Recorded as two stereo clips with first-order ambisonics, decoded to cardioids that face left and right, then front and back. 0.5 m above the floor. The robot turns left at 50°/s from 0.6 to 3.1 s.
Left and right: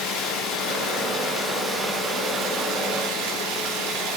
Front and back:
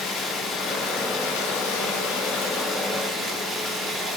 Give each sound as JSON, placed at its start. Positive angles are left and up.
{"t": 0.0, "sound": "running water", "azimuth_deg": 50, "distance_m": 5.5}